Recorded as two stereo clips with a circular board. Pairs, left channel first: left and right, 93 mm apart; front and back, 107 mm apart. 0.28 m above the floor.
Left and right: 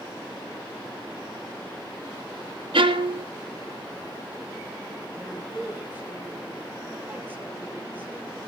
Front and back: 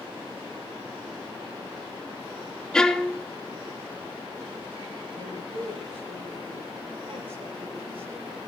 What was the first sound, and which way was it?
A violin, 80° right.